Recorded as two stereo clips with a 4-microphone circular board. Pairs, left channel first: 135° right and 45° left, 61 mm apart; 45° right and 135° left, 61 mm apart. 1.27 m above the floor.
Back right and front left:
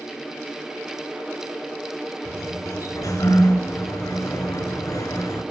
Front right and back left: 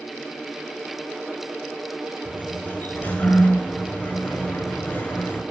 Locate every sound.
2.2 s a sliding door: 110° right, 6 m